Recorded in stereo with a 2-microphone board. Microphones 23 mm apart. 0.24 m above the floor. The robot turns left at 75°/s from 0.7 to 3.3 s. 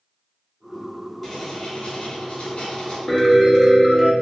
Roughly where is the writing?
Behind.